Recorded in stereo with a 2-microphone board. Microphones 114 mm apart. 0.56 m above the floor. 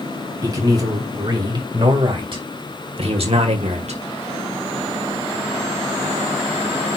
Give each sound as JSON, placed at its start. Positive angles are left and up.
{"t": 0.4, "sound": "a man speaking", "side_deg": -30, "distance_m": 3.5}